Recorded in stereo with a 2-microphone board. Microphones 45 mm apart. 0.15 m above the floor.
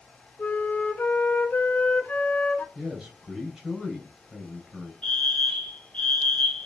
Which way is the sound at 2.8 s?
20° right (ahead or behind).